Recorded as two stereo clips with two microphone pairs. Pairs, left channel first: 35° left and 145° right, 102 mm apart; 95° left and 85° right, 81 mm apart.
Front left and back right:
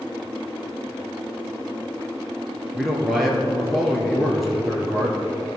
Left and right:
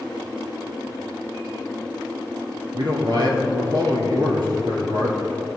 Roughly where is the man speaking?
Ahead right.